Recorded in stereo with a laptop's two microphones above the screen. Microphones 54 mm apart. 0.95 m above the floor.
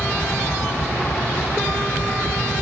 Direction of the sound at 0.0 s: 50° left (ahead or behind).